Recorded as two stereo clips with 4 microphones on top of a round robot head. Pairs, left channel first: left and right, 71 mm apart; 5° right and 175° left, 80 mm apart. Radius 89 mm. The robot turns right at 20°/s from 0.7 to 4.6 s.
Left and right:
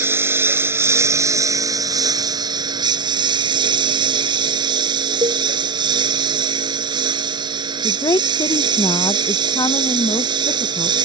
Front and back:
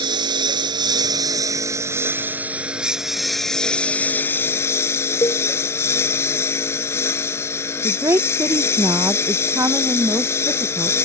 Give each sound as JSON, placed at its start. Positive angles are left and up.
{"t": 0.0, "sound": "a lawn mower", "azimuth_deg": -145}
{"t": 5.2, "sound": "a cowbell", "azimuth_deg": -60}
{"t": 7.8, "sound": "a woman speaking", "azimuth_deg": 125}